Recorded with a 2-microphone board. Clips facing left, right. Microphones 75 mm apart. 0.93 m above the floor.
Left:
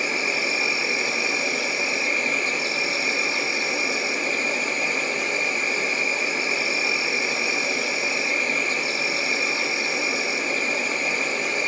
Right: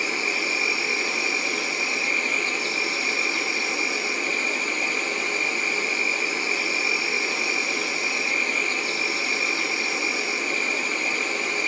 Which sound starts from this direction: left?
An insect, at 0.0 s.